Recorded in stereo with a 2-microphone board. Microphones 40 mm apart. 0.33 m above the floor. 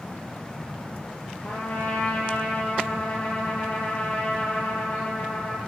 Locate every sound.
1.4 s a trumpet: 55° left (ahead or behind), 3 m